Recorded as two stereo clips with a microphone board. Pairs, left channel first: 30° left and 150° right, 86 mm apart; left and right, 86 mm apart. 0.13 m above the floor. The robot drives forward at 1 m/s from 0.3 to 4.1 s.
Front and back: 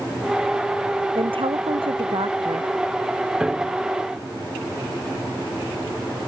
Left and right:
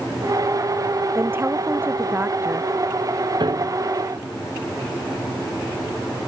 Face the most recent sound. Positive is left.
turn(degrees=-70)